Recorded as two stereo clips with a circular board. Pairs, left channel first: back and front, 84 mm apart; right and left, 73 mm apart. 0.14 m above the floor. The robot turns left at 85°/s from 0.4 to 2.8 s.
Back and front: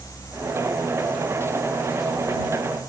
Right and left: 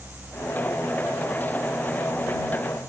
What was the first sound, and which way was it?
Only background noise.